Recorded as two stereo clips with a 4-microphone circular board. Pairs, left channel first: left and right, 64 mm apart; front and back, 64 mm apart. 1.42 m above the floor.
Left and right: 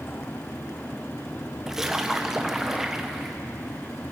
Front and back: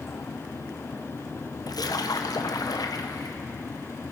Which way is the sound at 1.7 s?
5° right.